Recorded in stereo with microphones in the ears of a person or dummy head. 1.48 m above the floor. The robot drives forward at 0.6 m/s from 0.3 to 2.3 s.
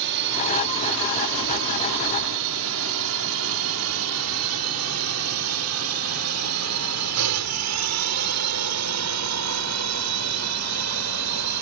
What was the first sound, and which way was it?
A drone, 65° right (ahead or behind).